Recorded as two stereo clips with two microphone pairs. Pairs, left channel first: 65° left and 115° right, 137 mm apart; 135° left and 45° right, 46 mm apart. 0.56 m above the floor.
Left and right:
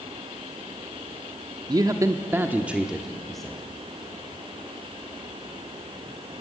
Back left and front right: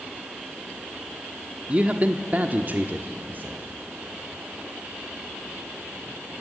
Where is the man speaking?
85° right, 1.0 m; by 3.6 s 20° right, 1.4 m.